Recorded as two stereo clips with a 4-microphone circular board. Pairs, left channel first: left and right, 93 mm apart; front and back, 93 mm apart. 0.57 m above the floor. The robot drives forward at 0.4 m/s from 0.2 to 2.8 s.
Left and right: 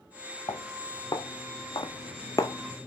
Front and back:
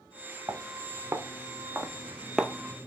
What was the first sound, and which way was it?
Footsteps, 125° left.